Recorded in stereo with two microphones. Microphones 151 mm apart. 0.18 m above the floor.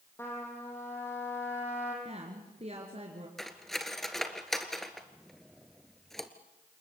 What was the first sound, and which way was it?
A trumpet, 15° left (ahead or behind).